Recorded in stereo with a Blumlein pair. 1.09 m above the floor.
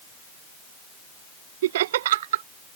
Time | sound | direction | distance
1.6 | laughter | 55° right | ?